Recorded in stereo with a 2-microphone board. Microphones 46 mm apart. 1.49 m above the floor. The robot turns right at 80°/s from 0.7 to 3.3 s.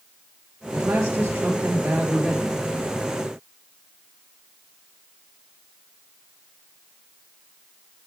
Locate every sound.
0.7 s a man speaking: 125° right, 1.4 m; by 2.6 s 25° left, 1.4 m